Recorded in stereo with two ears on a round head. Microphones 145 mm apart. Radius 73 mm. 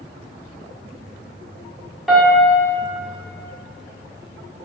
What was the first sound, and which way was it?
A piano, centre (ahead or behind).